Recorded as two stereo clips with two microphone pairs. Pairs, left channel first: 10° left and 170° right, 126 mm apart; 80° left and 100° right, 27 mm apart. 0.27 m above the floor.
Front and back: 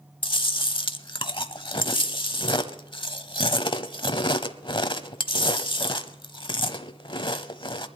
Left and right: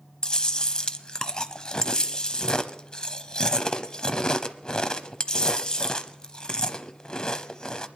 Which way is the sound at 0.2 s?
35° left.